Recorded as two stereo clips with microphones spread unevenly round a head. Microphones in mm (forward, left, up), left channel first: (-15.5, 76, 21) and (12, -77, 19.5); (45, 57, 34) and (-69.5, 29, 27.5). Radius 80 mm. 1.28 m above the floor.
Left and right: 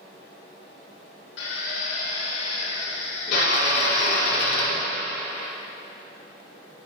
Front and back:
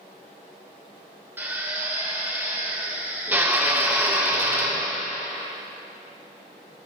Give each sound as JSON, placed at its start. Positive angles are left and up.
{"t": 1.4, "sound": "a drill", "azimuth_deg": 120, "distance_m": 3.0}